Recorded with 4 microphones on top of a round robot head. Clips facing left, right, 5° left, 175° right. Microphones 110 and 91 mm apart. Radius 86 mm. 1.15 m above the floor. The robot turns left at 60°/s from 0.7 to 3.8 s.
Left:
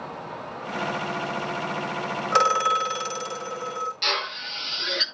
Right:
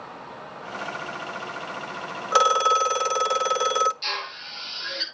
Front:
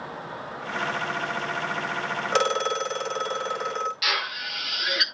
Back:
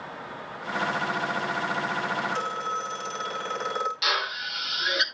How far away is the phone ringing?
About 0.7 m.